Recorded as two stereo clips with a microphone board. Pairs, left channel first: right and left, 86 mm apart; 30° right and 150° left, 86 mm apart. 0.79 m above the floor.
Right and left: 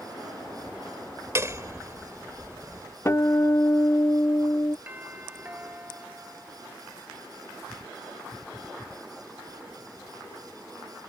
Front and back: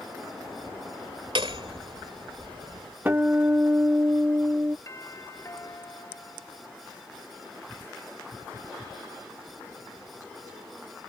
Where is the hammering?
145° left.